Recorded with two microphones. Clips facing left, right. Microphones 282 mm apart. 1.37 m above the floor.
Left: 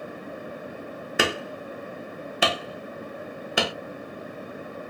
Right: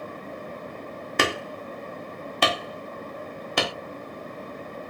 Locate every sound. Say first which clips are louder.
1.2 s hammering: even; 5° left (ahead or behind), 0.8 m